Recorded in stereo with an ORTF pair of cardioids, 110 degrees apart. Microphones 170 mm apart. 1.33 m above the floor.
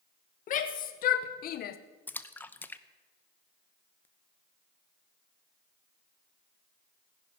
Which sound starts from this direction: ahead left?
A shout, at 0.5 s.